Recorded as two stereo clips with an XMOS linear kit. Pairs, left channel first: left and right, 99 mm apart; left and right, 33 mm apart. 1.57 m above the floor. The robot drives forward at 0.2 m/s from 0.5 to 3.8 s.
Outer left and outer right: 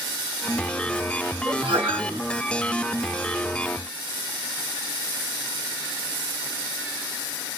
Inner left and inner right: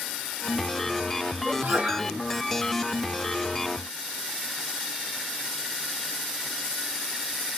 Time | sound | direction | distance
1.4 | a sneeze | 80° right | 1.9 m